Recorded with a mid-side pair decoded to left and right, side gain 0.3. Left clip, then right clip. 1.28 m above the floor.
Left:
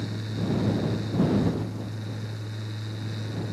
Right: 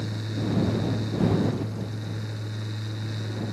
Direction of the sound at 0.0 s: 20° right.